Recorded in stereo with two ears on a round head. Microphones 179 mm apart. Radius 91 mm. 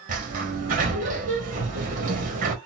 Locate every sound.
0.1 s a sliding door: 40° right (ahead or behind), 1.3 m